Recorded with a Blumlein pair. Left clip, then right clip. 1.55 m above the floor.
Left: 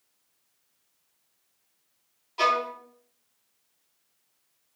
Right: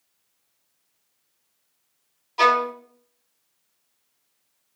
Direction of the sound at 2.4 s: 10° right.